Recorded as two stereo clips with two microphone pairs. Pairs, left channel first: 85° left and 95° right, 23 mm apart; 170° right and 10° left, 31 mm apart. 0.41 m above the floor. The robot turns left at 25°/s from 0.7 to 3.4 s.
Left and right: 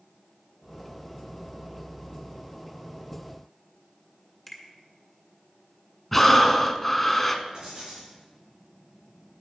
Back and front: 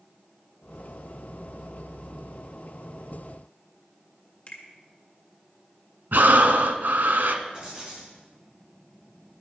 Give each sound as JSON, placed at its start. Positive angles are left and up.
{"t": 4.5, "sound": "a finger snap", "azimuth_deg": 170, "distance_m": 1.6}
{"t": 6.1, "sound": "breathing", "azimuth_deg": 5, "distance_m": 0.7}
{"t": 7.5, "sound": "writing", "azimuth_deg": -50, "distance_m": 4.0}